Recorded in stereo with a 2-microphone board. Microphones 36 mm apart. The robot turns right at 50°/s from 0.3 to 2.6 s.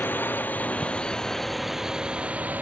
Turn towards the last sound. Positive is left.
turn(degrees=-50)  # may be behind; listen again after turning